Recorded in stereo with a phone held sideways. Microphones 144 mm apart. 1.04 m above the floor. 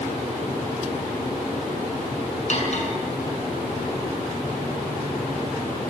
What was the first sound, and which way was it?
Cutlery clinking, 50° left (ahead or behind).